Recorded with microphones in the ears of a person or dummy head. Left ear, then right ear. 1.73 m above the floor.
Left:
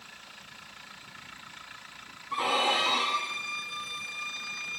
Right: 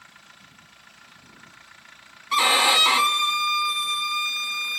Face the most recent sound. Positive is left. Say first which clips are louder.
# right 8 dB
turn(degrees=-60)  # may be behind; listen again after turning